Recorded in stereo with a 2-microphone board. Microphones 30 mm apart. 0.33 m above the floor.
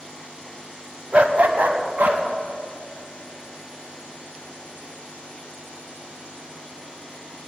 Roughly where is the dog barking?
Right.